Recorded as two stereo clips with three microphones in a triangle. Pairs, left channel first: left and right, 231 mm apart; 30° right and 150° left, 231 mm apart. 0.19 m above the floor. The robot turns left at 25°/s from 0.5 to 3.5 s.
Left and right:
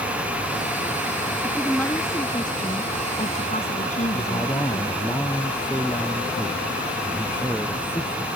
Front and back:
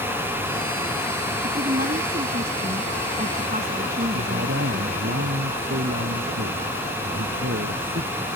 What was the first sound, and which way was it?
A woman speaking, 175° left.